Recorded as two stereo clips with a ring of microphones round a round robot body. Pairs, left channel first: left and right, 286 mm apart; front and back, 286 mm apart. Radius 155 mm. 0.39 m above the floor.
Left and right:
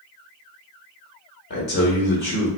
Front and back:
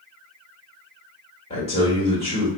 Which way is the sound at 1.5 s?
60° left.